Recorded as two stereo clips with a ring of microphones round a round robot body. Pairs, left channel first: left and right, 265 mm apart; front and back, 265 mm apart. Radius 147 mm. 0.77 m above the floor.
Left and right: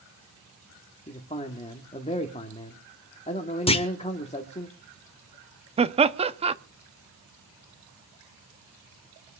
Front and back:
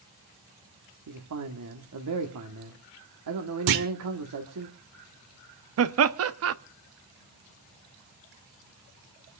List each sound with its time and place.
1.1 s a man speaking: 155° left, 1.6 m
3.7 s a clunk: 160° left, 1.2 m
5.8 s laughter: 155° right, 1.0 m